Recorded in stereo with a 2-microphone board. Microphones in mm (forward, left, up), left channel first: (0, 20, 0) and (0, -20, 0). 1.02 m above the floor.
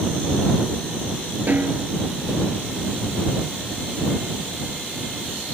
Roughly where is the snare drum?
Right.